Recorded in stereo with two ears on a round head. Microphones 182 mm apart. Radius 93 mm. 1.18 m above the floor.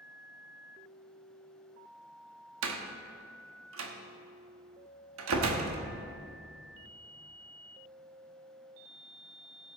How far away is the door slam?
About 1.2 m.